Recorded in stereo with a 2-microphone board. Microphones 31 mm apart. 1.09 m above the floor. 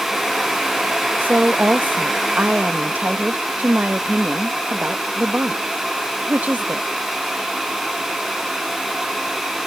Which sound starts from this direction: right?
A woman speaking, at 1.2 s.